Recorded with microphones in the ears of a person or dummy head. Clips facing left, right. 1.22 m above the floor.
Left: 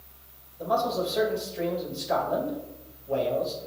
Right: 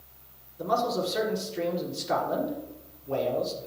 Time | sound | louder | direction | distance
0.6 | a man speaking | left 1 dB | 70° right (ahead or behind) | 3.5 m